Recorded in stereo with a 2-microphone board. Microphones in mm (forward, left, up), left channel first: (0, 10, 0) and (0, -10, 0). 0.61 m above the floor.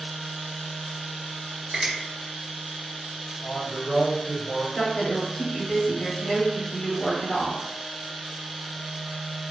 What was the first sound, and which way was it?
A finger snap, 55° right (ahead or behind).